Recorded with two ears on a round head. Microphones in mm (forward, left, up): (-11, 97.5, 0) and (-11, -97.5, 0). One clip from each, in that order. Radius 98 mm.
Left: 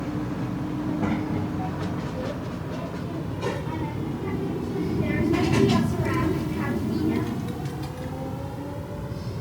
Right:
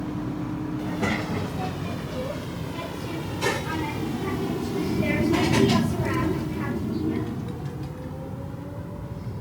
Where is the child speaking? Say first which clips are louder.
Right 1 dB; 80° right; by 9.4 s 45° left (ahead or behind).